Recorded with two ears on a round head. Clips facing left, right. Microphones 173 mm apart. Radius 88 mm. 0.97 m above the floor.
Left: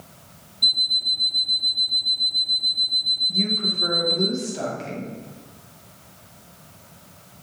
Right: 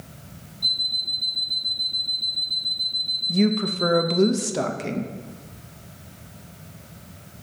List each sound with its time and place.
0.6 s an alarm clock: 60° left (ahead or behind), 1.0 m
3.3 s a woman speaking: 65° right (ahead or behind), 0.8 m